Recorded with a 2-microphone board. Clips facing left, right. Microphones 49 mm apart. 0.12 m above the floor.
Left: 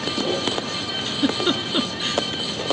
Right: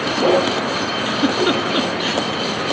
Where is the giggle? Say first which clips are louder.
Right 4 dB; 20° right (ahead or behind).